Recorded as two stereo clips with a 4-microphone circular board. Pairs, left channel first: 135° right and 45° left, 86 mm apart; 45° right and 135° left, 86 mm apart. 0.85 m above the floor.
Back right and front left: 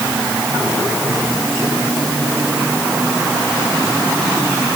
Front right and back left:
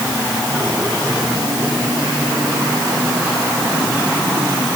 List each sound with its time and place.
Only background noise.